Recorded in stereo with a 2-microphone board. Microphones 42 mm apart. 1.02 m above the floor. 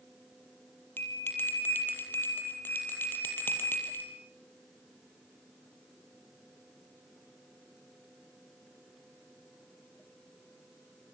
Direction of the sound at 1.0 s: 65° left (ahead or behind).